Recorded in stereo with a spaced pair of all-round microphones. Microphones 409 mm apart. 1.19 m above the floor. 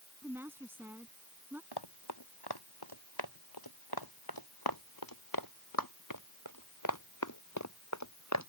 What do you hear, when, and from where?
0.2 s a woman speaking: 5° right (ahead or behind)
1.7 s running footsteps: 70° left (ahead or behind); by 8.5 s 40° left (ahead or behind)